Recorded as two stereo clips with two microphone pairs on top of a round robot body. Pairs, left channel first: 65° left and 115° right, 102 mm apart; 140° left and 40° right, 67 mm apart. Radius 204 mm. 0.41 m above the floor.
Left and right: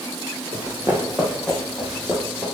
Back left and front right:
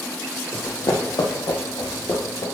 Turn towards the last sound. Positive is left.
turn(degrees=150)